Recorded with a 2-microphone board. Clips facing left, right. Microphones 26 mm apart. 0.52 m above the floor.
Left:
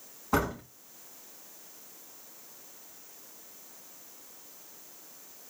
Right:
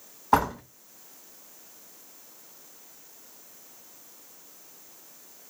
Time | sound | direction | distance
0.3 | a door slam | 75° right (ahead or behind) | 2.5 m